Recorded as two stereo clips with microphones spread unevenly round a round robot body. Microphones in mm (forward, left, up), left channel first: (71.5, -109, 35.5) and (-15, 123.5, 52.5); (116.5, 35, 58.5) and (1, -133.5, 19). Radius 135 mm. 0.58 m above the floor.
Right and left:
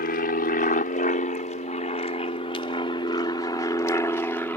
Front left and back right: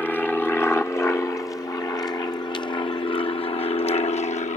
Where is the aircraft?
35° right; by 4.6 s 5° left.